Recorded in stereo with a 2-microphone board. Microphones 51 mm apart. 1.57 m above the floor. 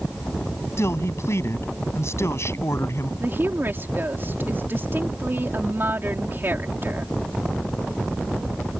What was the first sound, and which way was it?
A man speaking, 60° left (ahead or behind).